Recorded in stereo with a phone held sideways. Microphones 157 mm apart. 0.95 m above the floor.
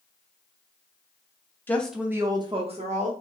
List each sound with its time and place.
1.7 s a woman speaking: 15° left (ahead or behind), 0.7 m; by 3.1 s 50° right (ahead or behind), 1.1 m